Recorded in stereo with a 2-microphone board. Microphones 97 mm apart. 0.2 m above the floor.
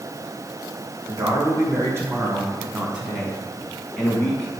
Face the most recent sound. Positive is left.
turn(degrees=15)  # may be behind; listen again after turning